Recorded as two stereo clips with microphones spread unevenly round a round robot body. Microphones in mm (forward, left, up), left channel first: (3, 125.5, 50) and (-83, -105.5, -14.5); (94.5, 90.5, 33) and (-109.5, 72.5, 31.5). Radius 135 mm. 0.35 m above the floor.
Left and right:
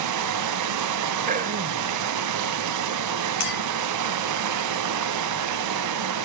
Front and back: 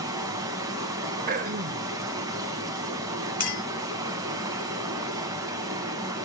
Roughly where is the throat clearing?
Behind right.